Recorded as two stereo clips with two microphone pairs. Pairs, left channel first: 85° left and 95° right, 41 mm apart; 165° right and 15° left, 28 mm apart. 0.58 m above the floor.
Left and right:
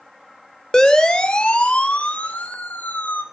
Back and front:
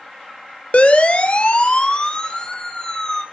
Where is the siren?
160° left, 2.5 m; by 3.2 s 125° left, 3 m.